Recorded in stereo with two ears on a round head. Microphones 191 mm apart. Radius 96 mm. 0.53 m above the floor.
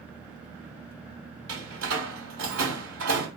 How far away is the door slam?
About 1.6 m.